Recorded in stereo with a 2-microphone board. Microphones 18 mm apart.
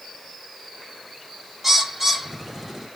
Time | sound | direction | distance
1.6 | a bird | 15° right (ahead or behind) | 1.3 m